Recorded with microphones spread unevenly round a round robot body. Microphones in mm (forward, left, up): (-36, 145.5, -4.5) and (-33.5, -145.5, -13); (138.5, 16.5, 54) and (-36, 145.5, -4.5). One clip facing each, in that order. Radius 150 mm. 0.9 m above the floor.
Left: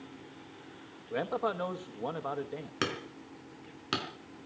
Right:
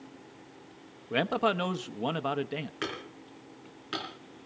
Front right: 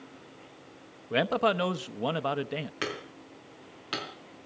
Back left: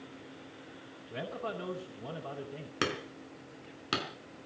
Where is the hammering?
110° left, 4 m.